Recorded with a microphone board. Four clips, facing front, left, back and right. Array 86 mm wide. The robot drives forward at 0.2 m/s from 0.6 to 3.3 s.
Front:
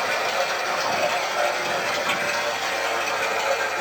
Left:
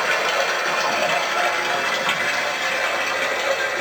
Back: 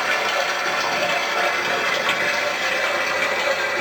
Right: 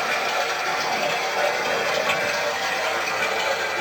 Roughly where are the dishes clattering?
I don't hear dishes clattering.